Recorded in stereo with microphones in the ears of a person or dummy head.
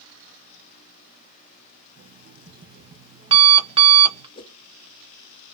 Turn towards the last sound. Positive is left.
turn(degrees=25)  # may be behind; listen again after turning